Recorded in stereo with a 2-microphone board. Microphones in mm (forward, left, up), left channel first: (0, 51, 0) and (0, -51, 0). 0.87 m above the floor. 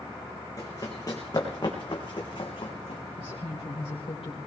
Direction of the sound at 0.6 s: 35° left (ahead or behind).